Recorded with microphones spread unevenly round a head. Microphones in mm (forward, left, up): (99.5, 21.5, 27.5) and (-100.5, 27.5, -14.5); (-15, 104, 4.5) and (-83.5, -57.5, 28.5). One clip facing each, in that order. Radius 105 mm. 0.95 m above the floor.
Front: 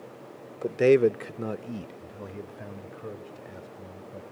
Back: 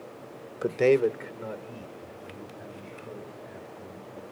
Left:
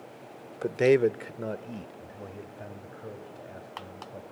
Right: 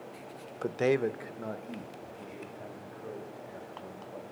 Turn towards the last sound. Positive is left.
turn(degrees=0)